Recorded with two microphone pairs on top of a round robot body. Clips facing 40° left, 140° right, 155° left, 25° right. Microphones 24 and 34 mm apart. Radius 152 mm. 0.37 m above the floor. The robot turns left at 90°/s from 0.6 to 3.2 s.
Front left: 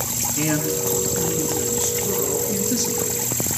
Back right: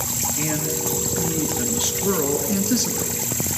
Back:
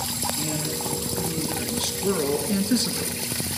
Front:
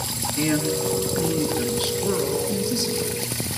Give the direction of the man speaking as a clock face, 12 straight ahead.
11 o'clock.